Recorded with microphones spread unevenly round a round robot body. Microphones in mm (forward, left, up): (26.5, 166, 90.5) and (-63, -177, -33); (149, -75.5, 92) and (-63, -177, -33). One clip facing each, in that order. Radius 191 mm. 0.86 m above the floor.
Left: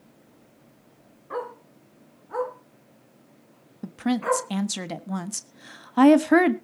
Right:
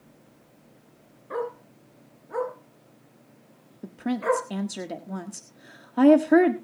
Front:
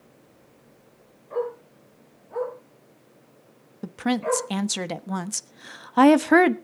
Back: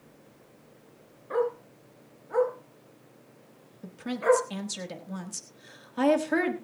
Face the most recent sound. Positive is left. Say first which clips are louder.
# left 2 dB, front 1 dB
turn(degrees=5)